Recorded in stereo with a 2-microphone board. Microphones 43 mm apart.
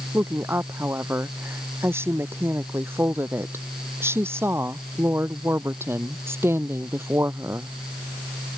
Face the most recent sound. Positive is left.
turn(degrees=-75)  # may be behind; listen again after turning